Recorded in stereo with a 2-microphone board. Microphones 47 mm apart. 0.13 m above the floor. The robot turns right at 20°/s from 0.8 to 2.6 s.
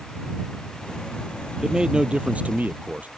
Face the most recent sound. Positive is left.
turn(degrees=-30)  # may be behind; listen again after turning